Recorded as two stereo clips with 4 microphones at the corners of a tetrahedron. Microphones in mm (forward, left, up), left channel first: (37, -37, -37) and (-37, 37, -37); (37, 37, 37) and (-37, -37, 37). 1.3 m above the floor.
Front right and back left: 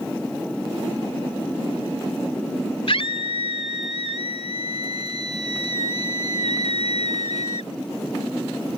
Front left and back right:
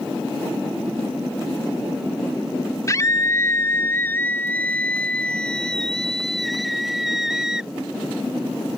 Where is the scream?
15° right; by 7.7 s 50° right.